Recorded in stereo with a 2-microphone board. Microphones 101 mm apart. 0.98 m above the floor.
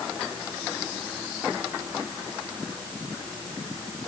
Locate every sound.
Only background noise.